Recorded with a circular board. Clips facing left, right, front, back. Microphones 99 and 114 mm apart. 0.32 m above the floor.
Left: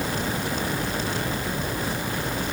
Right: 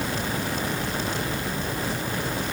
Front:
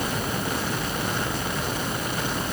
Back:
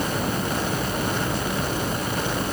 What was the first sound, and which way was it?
Only background noise.